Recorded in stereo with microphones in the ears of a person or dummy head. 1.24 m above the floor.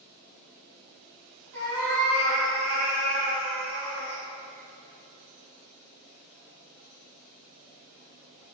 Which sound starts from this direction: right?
A cat meowing, at 1.5 s.